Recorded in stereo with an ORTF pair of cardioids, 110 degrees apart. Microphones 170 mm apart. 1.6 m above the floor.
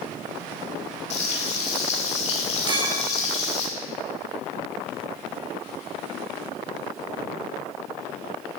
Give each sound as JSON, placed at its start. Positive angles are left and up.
{"t": 1.1, "sound": "frying", "azimuth_deg": 45, "distance_m": 6.5}
{"t": 2.7, "sound": "a clink", "azimuth_deg": -25, "distance_m": 3.5}